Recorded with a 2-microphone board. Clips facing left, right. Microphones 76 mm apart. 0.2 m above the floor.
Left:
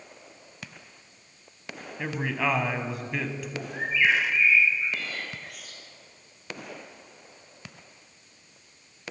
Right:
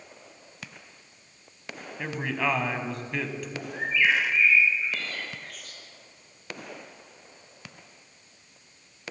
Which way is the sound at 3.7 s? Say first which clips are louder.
Even; 15° left (ahead or behind).